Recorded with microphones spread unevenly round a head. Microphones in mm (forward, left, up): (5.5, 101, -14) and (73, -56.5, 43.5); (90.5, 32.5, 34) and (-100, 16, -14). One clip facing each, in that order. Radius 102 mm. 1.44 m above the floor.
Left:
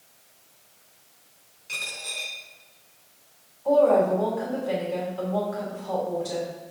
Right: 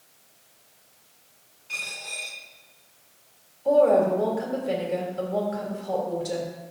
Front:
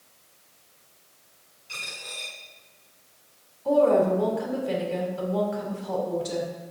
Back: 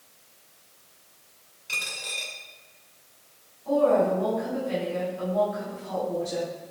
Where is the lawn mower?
I don't hear a lawn mower.